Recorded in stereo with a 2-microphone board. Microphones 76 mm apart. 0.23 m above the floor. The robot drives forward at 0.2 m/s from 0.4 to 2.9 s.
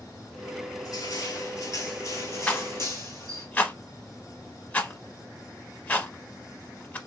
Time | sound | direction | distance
0.8 | crushing | 55° left (ahead or behind) | 0.9 m
2.5 | a rattle | 20° left (ahead or behind) | 0.7 m